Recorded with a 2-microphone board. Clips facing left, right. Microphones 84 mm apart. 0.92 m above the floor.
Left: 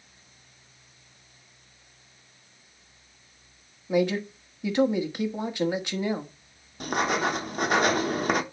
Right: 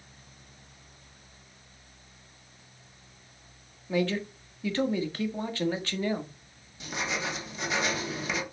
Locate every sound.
3.9 s a man speaking: 15° left (ahead or behind), 1.3 m
6.8 s writing: 50° left (ahead or behind), 0.8 m